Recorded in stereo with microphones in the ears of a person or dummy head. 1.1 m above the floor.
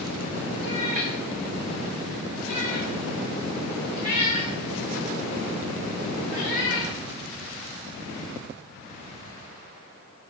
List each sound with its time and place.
0.6 s a cat meowing: 45° right (ahead or behind), 3 m; by 6.9 s 15° right (ahead or behind), 7 m